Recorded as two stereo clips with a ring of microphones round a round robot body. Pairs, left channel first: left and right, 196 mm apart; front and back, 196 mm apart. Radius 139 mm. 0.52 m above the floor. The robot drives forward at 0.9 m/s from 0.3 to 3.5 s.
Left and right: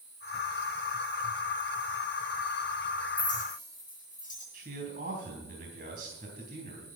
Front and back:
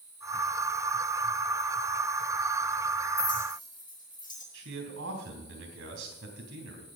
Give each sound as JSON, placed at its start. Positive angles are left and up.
{"t": 3.2, "sound": "a clink", "azimuth_deg": 45, "distance_m": 8.0}
{"t": 4.5, "sound": "a man speaking", "azimuth_deg": -150, "distance_m": 3.5}